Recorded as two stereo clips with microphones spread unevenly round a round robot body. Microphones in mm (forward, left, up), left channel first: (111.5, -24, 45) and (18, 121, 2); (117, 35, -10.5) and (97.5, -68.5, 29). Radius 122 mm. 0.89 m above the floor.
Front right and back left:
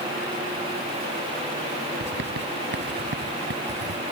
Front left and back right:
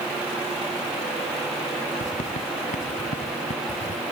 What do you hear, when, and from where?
2.0 s writing: 100° left